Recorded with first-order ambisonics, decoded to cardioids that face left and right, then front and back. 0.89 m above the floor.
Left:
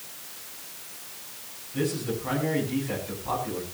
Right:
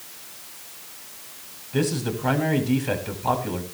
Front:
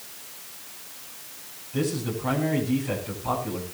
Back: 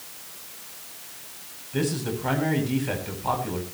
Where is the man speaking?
110° right, 6.5 m.